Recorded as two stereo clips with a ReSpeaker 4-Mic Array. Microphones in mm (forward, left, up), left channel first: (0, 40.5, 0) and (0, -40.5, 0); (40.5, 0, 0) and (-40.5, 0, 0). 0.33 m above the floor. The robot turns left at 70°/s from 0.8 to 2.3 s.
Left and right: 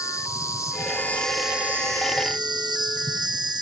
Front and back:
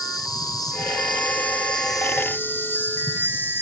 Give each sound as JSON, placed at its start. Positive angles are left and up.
{"t": 0.0, "sound": "an insect", "azimuth_deg": 40, "distance_m": 4.5}